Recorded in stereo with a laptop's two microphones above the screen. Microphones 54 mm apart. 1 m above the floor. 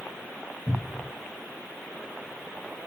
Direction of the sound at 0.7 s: 30° left (ahead or behind).